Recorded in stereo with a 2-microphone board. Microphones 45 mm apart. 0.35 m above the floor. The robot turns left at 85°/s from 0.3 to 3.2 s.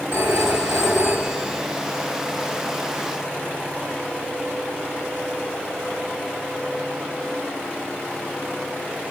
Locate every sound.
0.1 s a phone ringing: 70° right, 1.6 m; by 1.6 s straight behind, 1.6 m